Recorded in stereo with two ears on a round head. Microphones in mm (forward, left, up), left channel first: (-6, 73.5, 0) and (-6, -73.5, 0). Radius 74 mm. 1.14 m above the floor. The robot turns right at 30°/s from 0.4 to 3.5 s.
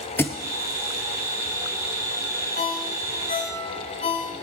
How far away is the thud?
About 1.1 m.